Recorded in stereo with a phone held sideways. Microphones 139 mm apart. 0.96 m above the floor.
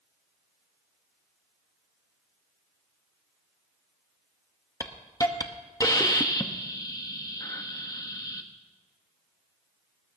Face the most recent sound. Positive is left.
turn(degrees=25)  # may be behind; listen again after turning